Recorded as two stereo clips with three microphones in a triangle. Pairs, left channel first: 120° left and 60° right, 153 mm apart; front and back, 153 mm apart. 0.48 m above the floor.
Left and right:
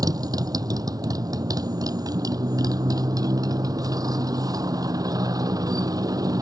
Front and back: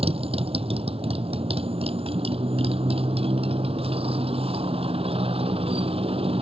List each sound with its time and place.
0.0 s a motorcycle: 125° right